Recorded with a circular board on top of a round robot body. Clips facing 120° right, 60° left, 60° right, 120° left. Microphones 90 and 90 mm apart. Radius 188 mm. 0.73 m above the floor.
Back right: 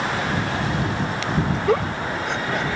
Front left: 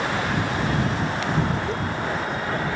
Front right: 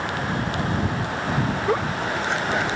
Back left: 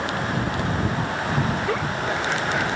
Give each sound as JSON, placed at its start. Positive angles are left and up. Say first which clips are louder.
{"t": 1.7, "sound": "a giggle", "louder": "back right 5 dB, front right 1 dB", "azimuth_deg": -130}